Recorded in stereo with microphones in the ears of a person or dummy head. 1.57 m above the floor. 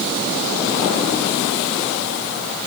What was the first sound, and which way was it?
Only background noise.